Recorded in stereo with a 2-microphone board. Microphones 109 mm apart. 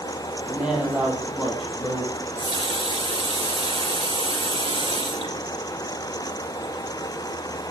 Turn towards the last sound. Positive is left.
turn(degrees=-60)  # may be behind; listen again after turning